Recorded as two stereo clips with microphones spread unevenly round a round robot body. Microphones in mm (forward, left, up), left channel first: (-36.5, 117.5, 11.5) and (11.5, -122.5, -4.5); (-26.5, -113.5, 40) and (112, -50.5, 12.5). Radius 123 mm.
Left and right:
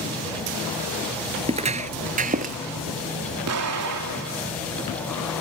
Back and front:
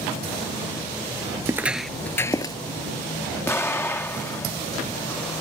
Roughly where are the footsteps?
Ahead right.